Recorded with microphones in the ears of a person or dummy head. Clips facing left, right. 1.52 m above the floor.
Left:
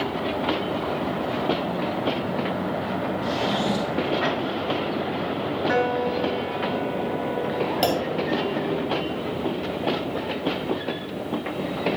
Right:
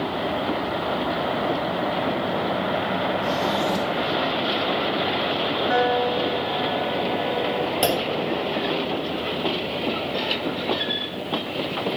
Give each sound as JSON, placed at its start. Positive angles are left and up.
{"t": 3.2, "sound": "a drawer", "side_deg": 0, "distance_m": 0.8}
{"t": 5.7, "sound": "a piano", "side_deg": 65, "distance_m": 2.5}
{"t": 7.8, "sound": "a clunk", "side_deg": 0, "distance_m": 2.0}